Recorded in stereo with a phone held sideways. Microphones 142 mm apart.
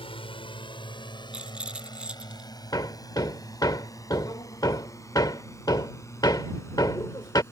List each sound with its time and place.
0.0 s a drone: 40° left (ahead or behind); by 7.5 s 20° left (ahead or behind)
1.3 s a rattle: 5° right (ahead or behind)
2.7 s hammering: 30° left (ahead or behind)